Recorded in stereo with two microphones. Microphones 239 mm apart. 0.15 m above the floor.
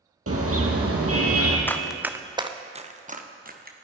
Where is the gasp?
No gasp in this recording.